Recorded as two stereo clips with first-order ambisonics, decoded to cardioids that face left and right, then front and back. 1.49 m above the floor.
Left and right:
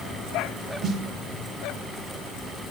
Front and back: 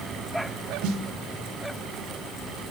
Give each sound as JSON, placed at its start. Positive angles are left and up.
{"t": 0.8, "sound": "a snare drum", "azimuth_deg": -150, "distance_m": 0.7}